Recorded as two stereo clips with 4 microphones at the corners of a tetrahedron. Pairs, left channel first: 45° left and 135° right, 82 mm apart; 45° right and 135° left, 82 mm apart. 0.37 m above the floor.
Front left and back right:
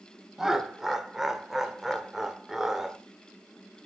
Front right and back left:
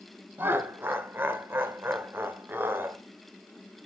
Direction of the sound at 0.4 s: 145° left.